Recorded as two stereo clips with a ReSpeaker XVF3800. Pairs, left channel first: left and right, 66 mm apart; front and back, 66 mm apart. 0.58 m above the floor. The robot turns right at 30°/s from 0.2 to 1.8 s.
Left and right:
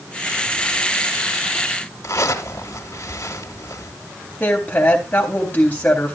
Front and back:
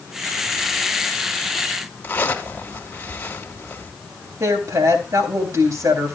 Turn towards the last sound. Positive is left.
turn(degrees=155)